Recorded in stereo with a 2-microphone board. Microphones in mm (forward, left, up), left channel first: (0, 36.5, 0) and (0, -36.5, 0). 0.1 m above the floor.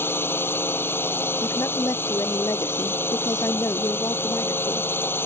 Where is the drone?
30° left (ahead or behind).